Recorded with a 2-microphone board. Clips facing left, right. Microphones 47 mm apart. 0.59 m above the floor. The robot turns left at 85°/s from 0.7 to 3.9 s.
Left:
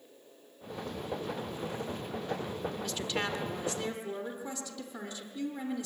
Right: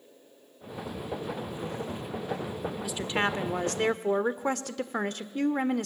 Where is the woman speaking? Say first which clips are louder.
Right 7 dB; 5° right, 1.4 m; by 5.9 s 95° right, 1.4 m.